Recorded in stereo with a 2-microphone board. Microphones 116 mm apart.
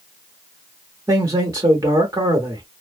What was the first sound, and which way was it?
A man speaking, 30° right (ahead or behind).